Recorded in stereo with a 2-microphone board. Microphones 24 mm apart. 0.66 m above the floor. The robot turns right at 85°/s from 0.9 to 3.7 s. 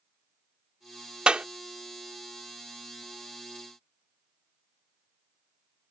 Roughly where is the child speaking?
I don't hear a child speaking.